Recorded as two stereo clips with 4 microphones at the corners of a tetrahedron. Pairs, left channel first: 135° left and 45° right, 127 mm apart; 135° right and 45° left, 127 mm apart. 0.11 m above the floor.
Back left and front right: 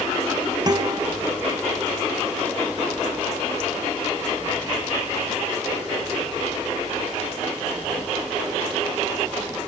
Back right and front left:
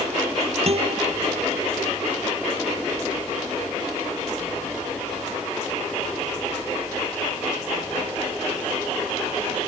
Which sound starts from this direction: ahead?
A guitar, at 0.7 s.